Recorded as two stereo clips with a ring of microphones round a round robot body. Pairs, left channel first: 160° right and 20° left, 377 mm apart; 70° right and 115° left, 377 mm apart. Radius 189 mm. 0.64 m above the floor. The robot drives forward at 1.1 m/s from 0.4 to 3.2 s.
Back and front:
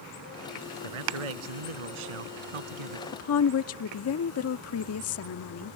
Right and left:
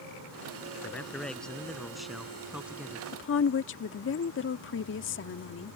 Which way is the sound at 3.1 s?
115° right.